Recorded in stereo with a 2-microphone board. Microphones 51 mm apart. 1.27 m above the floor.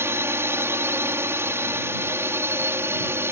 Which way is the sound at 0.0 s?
55° right (ahead or behind).